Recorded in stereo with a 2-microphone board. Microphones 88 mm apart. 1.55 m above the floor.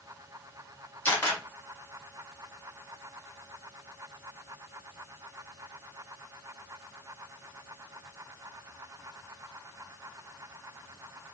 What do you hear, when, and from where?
1.1 s a camera shutter: 20° left (ahead or behind), 1.5 m